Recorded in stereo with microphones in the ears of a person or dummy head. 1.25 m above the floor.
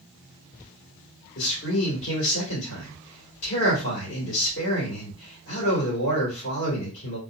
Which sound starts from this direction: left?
A man speaking, at 1.4 s.